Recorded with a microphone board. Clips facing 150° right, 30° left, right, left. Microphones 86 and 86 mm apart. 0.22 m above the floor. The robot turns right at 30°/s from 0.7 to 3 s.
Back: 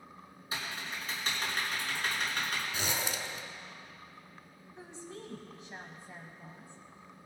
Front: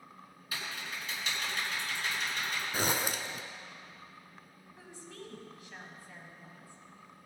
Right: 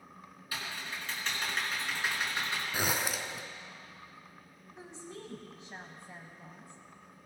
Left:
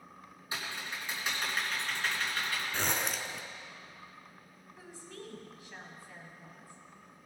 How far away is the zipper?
About 0.6 m.